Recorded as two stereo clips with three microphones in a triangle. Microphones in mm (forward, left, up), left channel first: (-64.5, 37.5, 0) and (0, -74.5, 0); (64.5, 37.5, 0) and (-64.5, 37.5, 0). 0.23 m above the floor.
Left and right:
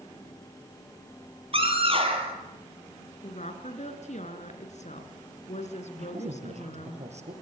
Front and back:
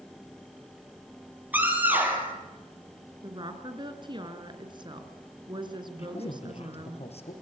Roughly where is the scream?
Right.